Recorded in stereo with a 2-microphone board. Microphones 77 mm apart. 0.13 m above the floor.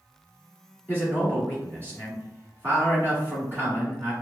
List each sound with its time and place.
0.9 s a man speaking: 25° right (ahead or behind), 1.6 m